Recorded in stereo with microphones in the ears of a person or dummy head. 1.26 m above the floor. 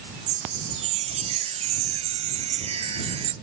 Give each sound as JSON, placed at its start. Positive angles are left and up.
{"t": 0.3, "sound": "a chime", "side_deg": -30}